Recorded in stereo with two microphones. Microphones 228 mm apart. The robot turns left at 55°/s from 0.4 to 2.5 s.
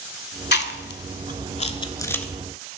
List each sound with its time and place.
0.5 s chewing: 45° left (ahead or behind), 0.5 m; by 2.2 s 5° left (ahead or behind), 0.5 m